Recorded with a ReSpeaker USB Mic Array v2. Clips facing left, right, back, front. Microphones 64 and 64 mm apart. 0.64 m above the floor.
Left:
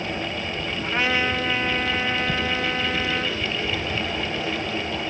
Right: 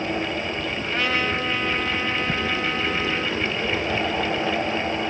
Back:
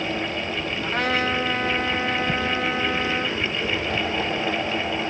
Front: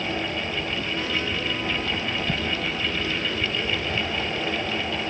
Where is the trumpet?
165° left, 2.5 m.